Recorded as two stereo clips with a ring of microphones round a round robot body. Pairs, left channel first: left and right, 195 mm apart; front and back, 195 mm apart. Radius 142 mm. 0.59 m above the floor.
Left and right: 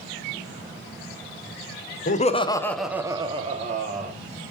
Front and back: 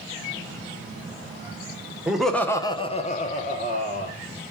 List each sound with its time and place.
2.1 s laughter: 95° left, 0.9 m; by 4.1 s 45° right, 1.6 m